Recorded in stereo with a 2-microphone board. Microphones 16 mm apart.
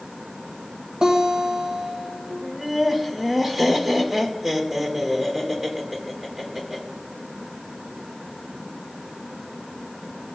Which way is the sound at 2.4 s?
20° right (ahead or behind).